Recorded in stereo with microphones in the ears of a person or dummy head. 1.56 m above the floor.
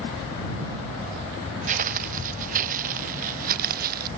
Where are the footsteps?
40° right (ahead or behind); by 4.1 s 50° right (ahead or behind).